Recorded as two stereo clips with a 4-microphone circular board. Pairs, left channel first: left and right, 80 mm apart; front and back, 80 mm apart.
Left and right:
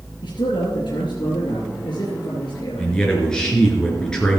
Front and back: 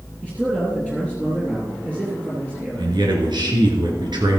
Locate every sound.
0.2 s a man speaking: 110° left, 3 m
2.8 s a man speaking: 170° left, 3 m